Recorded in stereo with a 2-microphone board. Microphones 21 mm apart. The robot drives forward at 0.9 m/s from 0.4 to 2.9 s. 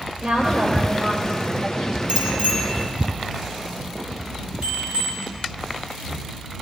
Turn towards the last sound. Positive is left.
turn(degrees=-70)  # may be behind; listen again after turning